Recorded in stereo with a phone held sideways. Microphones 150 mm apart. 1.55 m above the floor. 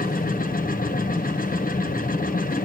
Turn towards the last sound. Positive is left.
turn(degrees=70)  # may be behind; listen again after turning